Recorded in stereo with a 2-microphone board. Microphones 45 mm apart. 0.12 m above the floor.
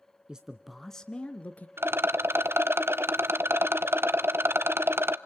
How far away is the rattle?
About 0.5 m.